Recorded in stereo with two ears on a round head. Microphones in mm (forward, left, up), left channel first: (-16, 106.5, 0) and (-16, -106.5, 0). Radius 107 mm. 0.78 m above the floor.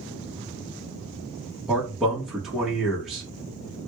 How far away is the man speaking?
About 1.1 m.